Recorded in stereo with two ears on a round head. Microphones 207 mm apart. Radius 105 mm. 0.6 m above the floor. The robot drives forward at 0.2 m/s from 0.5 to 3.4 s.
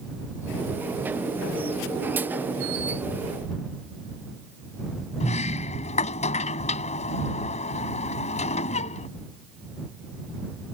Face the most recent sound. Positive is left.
turn(degrees=35)  # may be behind; listen again after turning